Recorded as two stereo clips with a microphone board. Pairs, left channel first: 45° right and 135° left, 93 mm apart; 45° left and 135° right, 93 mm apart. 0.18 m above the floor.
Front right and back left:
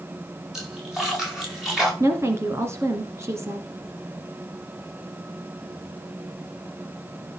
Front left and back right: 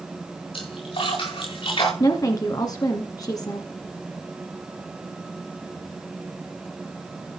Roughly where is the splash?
Ahead left.